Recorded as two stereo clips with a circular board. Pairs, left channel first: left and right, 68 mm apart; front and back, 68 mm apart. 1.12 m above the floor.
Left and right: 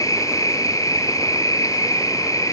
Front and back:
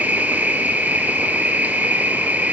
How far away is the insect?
About 2.5 m.